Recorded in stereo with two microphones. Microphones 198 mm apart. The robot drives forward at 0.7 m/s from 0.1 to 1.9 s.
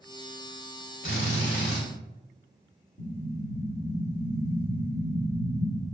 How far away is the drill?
About 1.1 m.